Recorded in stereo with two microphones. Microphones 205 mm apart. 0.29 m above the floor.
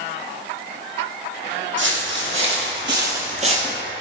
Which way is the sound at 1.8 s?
65° right (ahead or behind).